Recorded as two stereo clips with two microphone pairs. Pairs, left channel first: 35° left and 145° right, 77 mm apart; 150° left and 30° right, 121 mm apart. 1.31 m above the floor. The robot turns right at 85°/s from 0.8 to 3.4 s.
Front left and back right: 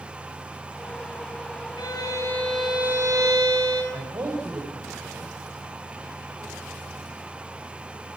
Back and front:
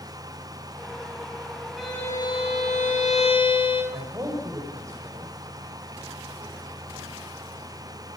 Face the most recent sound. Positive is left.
turn(degrees=-95)